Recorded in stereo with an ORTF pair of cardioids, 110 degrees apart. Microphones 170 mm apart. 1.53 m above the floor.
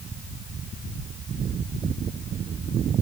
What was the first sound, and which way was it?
Only background noise.